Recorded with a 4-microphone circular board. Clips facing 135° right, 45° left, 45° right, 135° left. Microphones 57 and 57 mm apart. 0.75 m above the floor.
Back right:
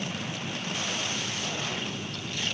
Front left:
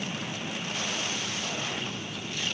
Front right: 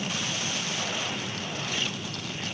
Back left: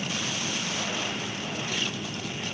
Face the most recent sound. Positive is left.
No sound to turn to.